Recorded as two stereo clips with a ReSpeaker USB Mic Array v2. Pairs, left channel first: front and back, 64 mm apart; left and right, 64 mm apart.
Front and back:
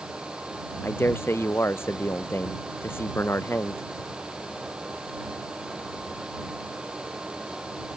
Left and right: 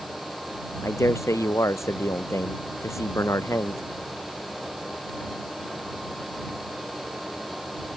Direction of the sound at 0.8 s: 50° left.